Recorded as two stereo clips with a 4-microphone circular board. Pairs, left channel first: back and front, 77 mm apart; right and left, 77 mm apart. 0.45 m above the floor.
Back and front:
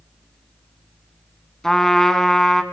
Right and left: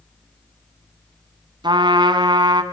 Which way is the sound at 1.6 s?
95° left.